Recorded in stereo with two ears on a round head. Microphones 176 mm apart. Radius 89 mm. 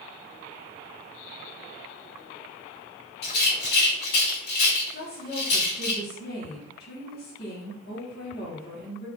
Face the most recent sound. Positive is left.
turn(degrees=45)  # may be behind; listen again after turning